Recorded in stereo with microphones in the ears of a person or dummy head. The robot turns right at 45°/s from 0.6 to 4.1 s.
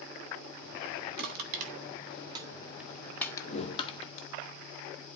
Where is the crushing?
55° right (ahead or behind), 1.4 m; by 4.3 s 40° left (ahead or behind), 1.4 m.